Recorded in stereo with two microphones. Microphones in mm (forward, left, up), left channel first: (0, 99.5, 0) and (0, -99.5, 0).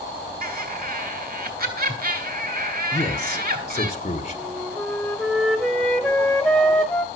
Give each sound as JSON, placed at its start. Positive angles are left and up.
{"t": 0.4, "sound": "laughter", "side_deg": -50, "distance_m": 2.5}
{"t": 2.9, "sound": "a man speaking", "side_deg": 35, "distance_m": 1.5}
{"t": 4.3, "sound": "a flute", "side_deg": 5, "distance_m": 1.7}